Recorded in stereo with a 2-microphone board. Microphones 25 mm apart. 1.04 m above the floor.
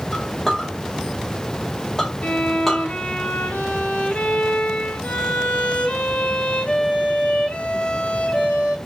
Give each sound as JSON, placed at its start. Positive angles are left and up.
{"t": 0.1, "sound": "a clink", "side_deg": 10, "distance_m": 1.5}
{"t": 2.2, "sound": "a violin", "side_deg": 60, "distance_m": 0.9}